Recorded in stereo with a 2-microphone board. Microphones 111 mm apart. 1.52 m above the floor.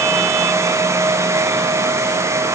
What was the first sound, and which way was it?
Only background noise.